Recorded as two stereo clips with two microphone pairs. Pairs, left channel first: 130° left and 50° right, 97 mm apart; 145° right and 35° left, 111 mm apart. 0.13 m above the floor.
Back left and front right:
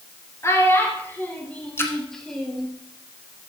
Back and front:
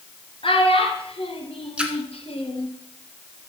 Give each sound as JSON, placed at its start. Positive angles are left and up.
{"t": 0.4, "sound": "a child speaking", "azimuth_deg": -170, "distance_m": 2.5}
{"t": 1.8, "sound": "a splash", "azimuth_deg": 105, "distance_m": 1.5}